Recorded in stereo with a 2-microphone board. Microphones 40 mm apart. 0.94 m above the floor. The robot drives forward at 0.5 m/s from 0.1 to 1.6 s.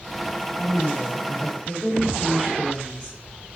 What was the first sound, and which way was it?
A woman speaking, 20° right (ahead or behind).